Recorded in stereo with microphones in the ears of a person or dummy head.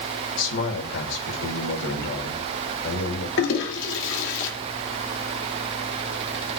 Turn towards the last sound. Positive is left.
turn(degrees=70)  # may be behind; listen again after turning